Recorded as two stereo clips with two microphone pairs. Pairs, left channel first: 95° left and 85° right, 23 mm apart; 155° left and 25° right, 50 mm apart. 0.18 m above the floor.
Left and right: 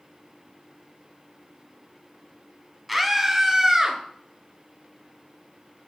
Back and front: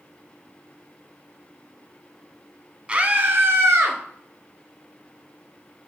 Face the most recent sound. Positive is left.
turn(degrees=-10)